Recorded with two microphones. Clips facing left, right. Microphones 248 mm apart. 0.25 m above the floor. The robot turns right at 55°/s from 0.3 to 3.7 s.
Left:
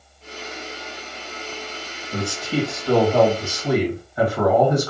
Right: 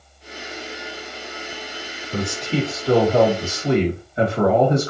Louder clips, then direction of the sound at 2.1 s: Right 1 dB; 10° left (ahead or behind).